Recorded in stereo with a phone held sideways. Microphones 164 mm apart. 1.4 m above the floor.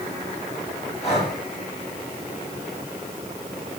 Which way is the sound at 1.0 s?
40° left (ahead or behind).